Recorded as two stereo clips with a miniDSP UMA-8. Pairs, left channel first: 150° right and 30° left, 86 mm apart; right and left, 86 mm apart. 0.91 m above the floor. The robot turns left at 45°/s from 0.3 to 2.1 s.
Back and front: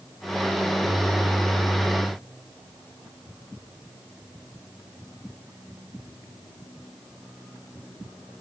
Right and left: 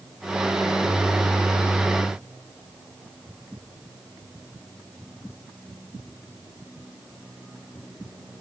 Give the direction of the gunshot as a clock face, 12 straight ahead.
No gunshot in this recording.